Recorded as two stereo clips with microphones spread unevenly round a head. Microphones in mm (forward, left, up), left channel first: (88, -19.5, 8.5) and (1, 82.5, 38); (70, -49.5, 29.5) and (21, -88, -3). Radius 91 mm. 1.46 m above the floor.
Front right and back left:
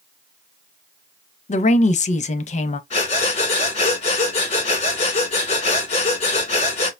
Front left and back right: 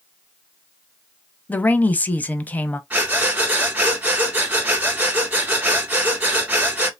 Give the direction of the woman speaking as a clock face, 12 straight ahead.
12 o'clock.